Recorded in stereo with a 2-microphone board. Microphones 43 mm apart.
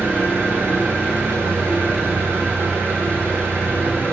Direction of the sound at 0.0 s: 75° right (ahead or behind).